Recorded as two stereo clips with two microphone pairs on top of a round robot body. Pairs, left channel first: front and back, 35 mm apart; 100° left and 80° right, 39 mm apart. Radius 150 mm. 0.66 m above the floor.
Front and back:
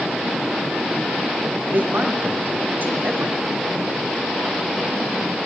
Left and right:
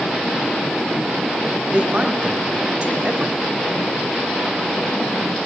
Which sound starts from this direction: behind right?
A man speaking, at 1.7 s.